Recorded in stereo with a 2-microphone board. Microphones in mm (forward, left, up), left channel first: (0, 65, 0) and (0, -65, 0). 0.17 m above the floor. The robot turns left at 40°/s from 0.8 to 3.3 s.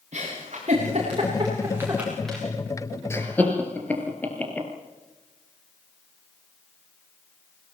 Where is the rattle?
No rattle in this recording.